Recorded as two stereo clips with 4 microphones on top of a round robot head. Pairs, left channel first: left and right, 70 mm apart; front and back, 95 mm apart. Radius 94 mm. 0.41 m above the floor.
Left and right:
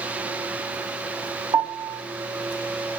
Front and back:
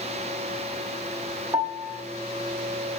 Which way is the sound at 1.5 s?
110° right.